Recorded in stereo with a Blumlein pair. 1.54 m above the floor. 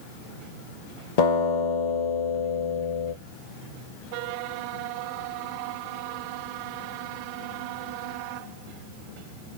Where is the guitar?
50° left, 2.0 m.